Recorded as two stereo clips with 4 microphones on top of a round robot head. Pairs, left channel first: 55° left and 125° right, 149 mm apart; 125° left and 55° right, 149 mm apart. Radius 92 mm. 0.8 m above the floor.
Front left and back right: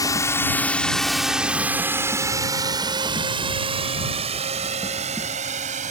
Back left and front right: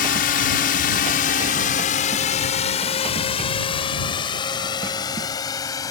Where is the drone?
120° left; by 5.9 s 165° right.